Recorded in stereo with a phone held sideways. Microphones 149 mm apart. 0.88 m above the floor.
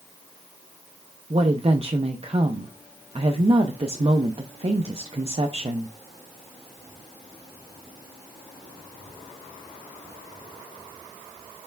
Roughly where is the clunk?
I don't hear a clunk.